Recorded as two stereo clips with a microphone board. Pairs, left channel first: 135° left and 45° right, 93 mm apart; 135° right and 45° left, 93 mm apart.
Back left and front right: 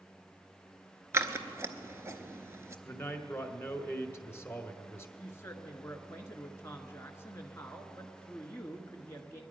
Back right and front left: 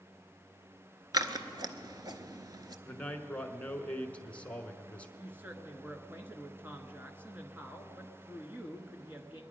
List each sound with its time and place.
1.1 s scissors: 10° left, 0.7 m
2.9 s a man speaking: 165° left, 1.1 m
5.2 s a woman speaking: 100° left, 1.3 m